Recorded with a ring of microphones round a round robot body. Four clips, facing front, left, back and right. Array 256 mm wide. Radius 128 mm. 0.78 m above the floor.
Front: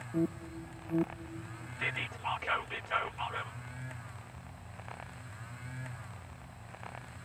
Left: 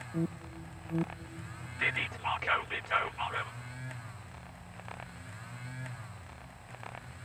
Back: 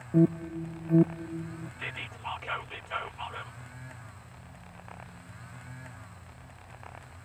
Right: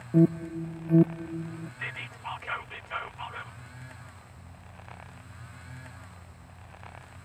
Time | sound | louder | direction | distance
0.1 | an alarm | right 14 dB, back 9 dB | 125° right | ?
1.8 | whispering | left 4 dB, front 6 dB | 75° left | ?